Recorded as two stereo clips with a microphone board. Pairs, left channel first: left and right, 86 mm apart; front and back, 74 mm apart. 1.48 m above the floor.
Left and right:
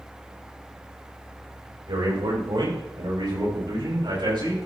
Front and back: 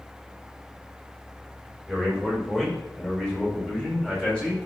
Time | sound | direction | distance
1.9 | a man speaking | 85° right | 5.5 m